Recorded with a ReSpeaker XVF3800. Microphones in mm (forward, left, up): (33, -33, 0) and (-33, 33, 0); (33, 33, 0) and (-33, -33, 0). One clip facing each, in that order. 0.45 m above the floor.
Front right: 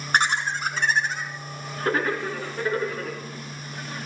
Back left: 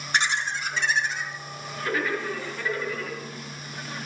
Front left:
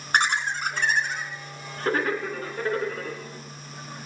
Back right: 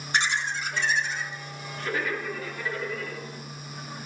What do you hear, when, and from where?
0.1 s laughter: straight ahead, 4 m; by 3.2 s 5° left, 6 m